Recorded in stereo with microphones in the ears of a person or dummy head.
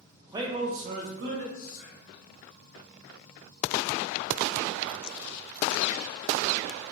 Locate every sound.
0.2 s a man speaking: 5° right (ahead or behind), 0.6 m; by 1.4 s 65° right (ahead or behind), 1.1 m
1.5 s whispering: 45° left (ahead or behind), 1.1 m